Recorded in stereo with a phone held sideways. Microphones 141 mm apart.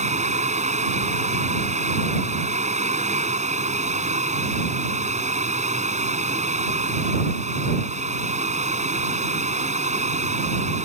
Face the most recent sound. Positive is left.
turn(degrees=-55)  # may be behind; listen again after turning